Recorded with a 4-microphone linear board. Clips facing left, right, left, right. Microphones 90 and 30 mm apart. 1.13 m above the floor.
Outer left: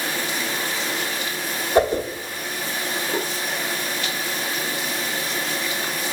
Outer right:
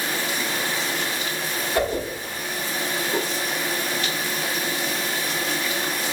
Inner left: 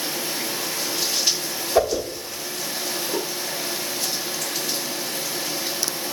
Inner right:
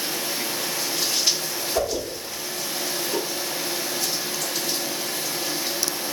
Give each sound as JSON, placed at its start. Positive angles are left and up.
{"t": 1.8, "sound": "a whoosh", "side_deg": 25, "distance_m": 0.7}